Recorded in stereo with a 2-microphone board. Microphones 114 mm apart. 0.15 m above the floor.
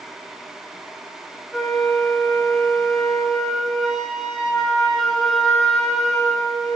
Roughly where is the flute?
Centre.